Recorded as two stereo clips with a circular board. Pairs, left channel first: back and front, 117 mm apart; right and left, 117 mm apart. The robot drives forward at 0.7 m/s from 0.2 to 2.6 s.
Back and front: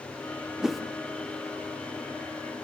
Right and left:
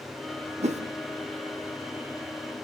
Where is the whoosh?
85° left, 1.0 m; by 0.8 s 90° left, 1.0 m.